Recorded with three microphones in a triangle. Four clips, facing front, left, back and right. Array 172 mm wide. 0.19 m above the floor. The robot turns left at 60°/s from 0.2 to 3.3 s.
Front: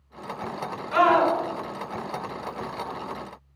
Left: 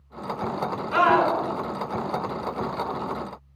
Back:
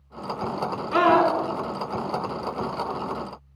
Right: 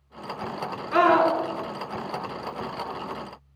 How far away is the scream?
About 3 m.